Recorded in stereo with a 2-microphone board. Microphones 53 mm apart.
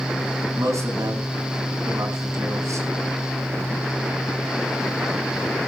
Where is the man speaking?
75° right (ahead or behind), 5 m.